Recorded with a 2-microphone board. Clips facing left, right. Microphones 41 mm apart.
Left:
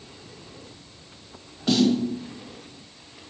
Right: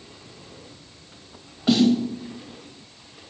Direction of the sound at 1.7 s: 10° right (ahead or behind).